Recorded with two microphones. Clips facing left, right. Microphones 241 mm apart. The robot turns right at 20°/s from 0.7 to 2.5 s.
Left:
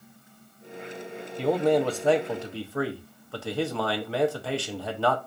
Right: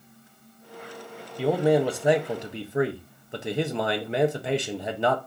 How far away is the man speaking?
About 0.5 m.